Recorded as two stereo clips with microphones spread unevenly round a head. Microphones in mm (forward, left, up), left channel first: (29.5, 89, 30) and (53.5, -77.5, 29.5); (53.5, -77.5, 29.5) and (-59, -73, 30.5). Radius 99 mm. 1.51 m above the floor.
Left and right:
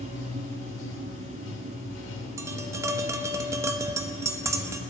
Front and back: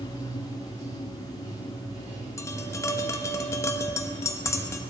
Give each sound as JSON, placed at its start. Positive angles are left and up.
{"t": 0.0, "sound": "running water", "azimuth_deg": 105, "distance_m": 2.0}
{"t": 2.4, "sound": "tapping", "azimuth_deg": -30, "distance_m": 0.8}